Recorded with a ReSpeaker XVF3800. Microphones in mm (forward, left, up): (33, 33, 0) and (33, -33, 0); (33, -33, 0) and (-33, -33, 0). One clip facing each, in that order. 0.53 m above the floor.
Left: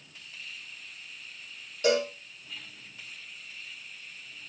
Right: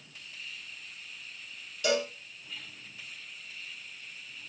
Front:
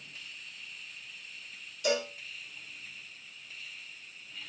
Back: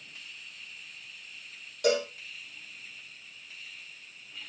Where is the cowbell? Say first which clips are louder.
Left 4 dB, back 4 dB; 145° left, 5 m.